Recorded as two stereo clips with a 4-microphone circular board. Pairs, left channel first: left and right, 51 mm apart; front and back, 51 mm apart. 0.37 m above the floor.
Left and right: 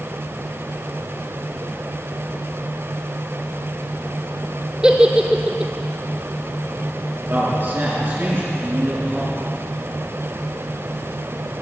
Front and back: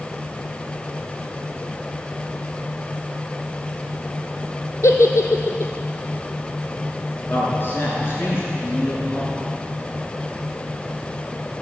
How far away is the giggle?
About 1.1 m.